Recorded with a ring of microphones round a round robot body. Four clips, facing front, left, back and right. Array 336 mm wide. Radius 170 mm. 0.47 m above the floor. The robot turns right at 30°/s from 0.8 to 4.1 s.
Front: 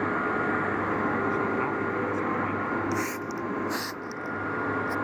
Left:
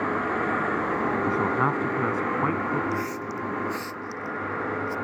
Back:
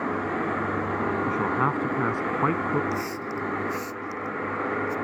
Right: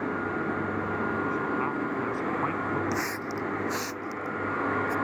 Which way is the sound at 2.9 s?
65° right.